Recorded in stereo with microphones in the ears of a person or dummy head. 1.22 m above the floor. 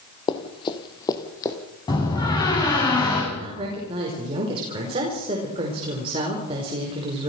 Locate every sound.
0.3 s running footsteps: 25° left (ahead or behind), 1.6 m; by 1.6 s 15° left (ahead or behind), 3 m
1.9 s a door slam: 25° left (ahead or behind), 7.5 m
3.3 s a woman speaking: 30° right (ahead or behind), 5 m